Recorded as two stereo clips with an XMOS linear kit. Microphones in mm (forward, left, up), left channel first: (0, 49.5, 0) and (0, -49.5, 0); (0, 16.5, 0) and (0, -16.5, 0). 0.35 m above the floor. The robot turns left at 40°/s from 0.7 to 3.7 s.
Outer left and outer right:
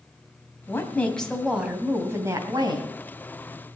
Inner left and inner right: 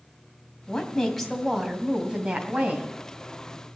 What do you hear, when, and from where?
0.7 s a woman speaking: 30° left, 2.5 m; by 2.9 s 60° right, 2.5 m